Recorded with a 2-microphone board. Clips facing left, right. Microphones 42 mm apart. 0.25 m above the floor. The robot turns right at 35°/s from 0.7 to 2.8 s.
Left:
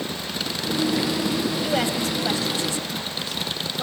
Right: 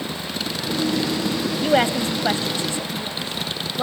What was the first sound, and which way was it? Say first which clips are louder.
A woman speaking: right 5 dB; 30° right (ahead or behind).